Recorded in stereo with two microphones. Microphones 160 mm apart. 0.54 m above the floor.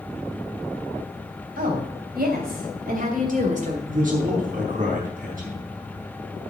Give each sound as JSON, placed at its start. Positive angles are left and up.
{"t": 1.6, "sound": "a woman speaking", "side_deg": -70, "distance_m": 3.0}
{"t": 3.9, "sound": "a man speaking", "side_deg": -60, "distance_m": 4.0}